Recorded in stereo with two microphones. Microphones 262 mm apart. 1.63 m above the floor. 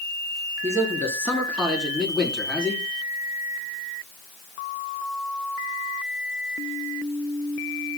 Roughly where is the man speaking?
Centre.